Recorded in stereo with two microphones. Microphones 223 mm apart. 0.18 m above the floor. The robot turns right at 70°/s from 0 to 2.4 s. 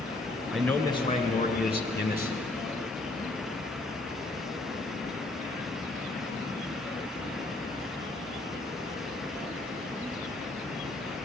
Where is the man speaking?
Straight ahead, 2.5 m; by 2.5 s 130° left, 2.5 m.